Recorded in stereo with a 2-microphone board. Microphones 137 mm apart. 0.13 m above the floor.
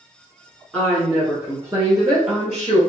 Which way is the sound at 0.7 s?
5° left (ahead or behind).